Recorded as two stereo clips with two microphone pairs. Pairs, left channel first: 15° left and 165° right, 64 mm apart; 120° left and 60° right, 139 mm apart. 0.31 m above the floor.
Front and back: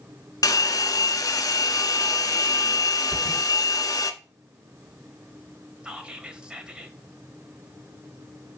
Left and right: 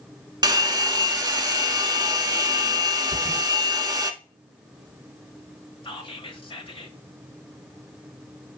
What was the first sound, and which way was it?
A hair dryer, straight ahead.